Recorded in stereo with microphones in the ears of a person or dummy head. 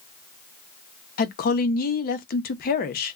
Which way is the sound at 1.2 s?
45° left (ahead or behind).